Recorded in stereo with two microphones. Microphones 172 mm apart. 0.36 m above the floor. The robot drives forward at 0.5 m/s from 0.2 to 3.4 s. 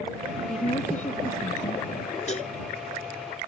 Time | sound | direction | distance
0.5 | a woman speaking | 45° left (ahead or behind) | ?
2.3 | a cowbell | 40° left (ahead or behind) | ?